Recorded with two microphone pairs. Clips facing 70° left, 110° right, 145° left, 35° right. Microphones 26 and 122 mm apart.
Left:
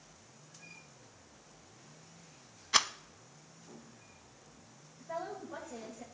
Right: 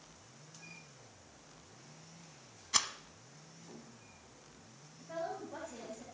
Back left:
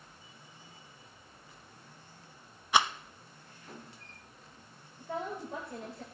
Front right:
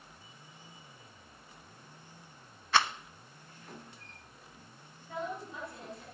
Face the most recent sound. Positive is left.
turn(degrees=140)